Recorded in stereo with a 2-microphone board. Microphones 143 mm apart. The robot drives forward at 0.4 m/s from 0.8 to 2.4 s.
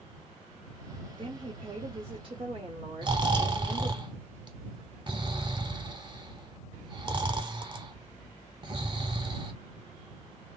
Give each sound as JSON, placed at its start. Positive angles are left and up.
{"t": 1.2, "sound": "a woman speaking", "side_deg": -35, "distance_m": 1.0}
{"t": 3.0, "sound": "snoring", "side_deg": -35, "distance_m": 0.6}